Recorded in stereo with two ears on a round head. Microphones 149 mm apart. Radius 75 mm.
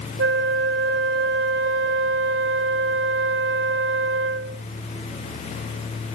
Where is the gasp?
No gasp in this recording.